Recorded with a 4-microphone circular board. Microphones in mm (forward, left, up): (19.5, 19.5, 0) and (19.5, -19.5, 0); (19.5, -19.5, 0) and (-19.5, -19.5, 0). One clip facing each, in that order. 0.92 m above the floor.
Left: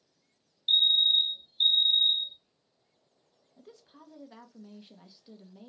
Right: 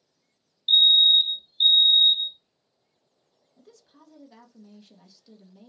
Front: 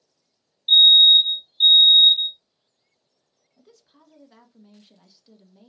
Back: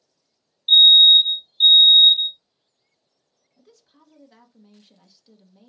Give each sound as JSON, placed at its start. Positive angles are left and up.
{"t": 0.7, "sound": "a fire alarm", "azimuth_deg": -105, "distance_m": 1.2}
{"t": 3.6, "sound": "a woman speaking", "azimuth_deg": 80, "distance_m": 0.7}